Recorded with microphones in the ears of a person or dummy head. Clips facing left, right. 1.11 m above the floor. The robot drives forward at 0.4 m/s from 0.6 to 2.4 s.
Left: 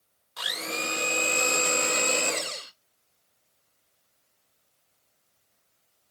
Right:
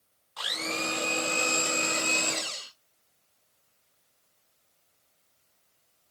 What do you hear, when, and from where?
0.4 s a blender: 25° left (ahead or behind), 0.9 m; by 2.7 s 40° left (ahead or behind), 0.6 m